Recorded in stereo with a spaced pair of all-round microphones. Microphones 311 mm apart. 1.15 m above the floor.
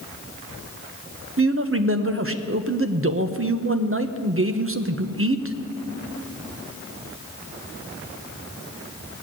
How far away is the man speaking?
About 0.9 m.